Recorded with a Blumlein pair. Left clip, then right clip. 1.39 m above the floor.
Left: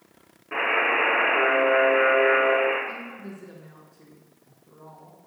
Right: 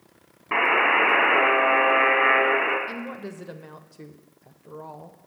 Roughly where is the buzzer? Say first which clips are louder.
Right 3 dB; ahead right.